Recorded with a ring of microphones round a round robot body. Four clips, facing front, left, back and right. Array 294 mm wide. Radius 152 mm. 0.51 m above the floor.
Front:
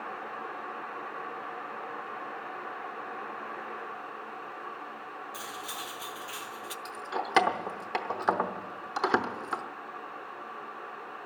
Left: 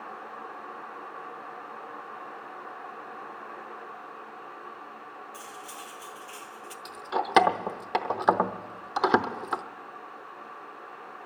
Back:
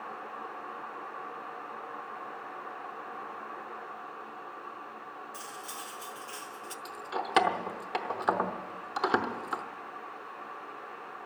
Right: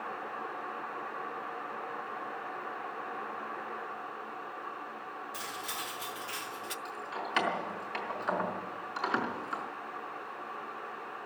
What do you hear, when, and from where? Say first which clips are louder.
5.3 s cutlery clinking: right 2 dB, front 3 dB; 50° right, 0.5 m
6.8 s keys jangling: left 11 dB, front 1 dB; 85° left, 0.8 m